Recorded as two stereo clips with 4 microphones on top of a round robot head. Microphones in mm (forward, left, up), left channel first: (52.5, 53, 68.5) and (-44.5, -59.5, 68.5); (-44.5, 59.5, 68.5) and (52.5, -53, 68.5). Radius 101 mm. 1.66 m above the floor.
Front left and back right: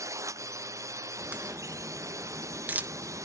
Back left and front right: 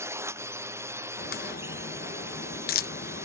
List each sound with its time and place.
0.0 s a drone: 95° right
1.2 s a crack: 150° left